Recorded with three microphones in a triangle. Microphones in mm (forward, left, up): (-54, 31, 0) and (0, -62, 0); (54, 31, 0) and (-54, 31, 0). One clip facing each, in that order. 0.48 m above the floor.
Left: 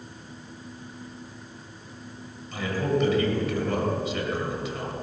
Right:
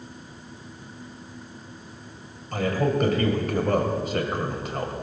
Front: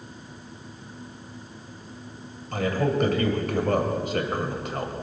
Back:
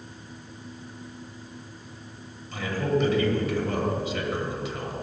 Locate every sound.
2.5 s a man speaking: 30° right, 2.5 m